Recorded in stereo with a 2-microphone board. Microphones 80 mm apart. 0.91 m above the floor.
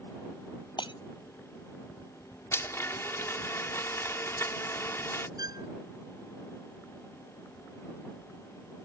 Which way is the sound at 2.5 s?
35° left (ahead or behind).